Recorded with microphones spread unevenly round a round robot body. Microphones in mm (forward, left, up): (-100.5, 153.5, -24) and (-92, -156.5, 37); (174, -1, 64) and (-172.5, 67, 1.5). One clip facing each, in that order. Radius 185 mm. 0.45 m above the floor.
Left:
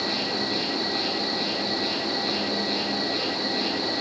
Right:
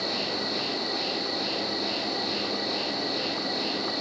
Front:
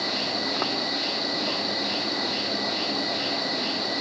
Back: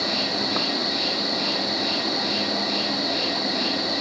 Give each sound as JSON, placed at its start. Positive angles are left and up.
{"t": 0.0, "sound": "an insect", "azimuth_deg": 100, "distance_m": 3.5}